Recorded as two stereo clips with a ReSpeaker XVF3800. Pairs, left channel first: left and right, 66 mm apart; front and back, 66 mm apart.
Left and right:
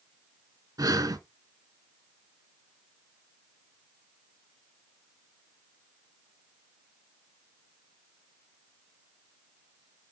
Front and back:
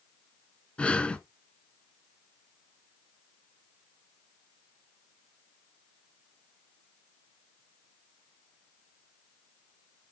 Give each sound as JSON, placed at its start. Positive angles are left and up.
{"t": 0.8, "sound": "breathing", "azimuth_deg": -70, "distance_m": 0.6}